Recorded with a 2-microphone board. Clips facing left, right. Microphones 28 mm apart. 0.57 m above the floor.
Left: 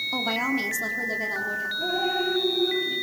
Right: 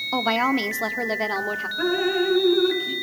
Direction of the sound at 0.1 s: 30° right (ahead or behind).